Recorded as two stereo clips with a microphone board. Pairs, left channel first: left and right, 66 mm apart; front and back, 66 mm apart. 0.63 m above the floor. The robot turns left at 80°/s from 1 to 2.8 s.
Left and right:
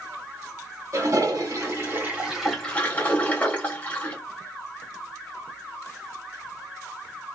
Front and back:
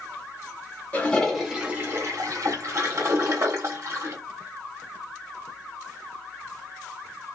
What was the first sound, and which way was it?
A toilet flushing, 65° right.